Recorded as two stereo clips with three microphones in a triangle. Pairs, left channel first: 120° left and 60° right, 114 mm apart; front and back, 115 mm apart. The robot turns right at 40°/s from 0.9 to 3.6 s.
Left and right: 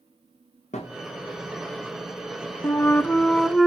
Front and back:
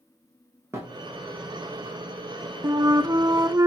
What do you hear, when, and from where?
0.7 s a thud: 115° left, 4 m; by 1.0 s 120° left, 4 m
2.6 s a flute: 170° left, 0.5 m; by 3.7 s 155° right, 0.5 m